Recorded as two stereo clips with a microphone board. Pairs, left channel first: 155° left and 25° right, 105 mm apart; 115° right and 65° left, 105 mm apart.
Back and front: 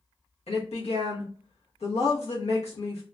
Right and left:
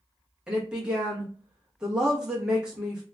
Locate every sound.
0.5 s a woman speaking: 150° left, 0.9 m